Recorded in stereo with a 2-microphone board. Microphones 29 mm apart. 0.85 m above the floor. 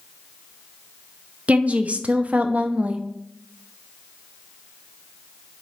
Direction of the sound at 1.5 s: 50° right (ahead or behind).